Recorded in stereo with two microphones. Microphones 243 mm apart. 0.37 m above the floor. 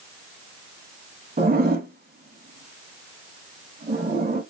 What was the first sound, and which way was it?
A zipper, 40° right (ahead or behind).